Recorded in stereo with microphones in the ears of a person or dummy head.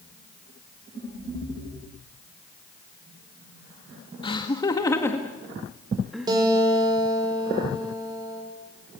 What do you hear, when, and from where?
4.2 s laughter: 30° left (ahead or behind), 1.9 m; by 6.3 s centre (ahead or behind), 2 m
6.3 s a guitar: 25° right (ahead or behind), 5.5 m